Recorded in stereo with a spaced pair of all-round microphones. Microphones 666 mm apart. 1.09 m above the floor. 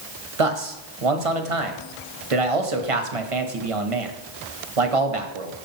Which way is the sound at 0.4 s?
55° right (ahead or behind).